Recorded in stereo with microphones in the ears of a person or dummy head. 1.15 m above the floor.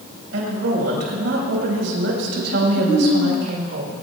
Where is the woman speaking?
65° right (ahead or behind), 5.5 m.